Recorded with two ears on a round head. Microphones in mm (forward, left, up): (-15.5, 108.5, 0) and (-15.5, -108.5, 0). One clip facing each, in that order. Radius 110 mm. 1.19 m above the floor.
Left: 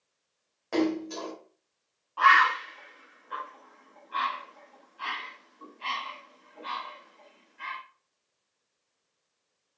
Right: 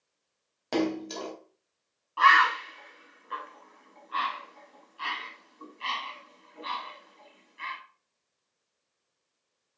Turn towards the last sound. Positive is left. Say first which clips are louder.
# even
turn(degrees=-35)  # may be behind; listen again after turning